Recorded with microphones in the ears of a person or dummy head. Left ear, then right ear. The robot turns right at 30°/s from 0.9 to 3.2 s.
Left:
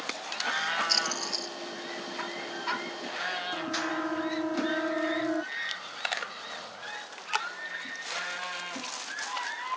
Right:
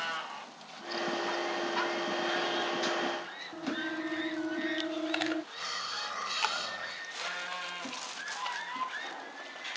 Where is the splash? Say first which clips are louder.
Left 5 dB; 60° left (ahead or behind); by 1.6 s 80° left.